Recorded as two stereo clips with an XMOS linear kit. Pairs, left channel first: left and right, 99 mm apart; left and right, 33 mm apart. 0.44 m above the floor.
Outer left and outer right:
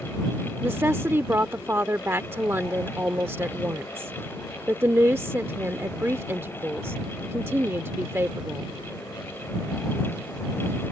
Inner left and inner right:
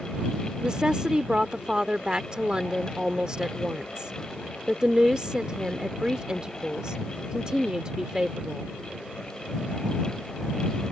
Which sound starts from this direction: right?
A woman speaking, at 0.6 s.